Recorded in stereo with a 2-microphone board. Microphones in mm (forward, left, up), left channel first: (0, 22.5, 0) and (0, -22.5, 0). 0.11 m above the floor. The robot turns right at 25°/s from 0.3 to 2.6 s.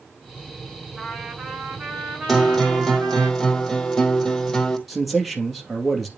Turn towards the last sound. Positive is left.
turn(degrees=0)  # may be behind; listen again after turning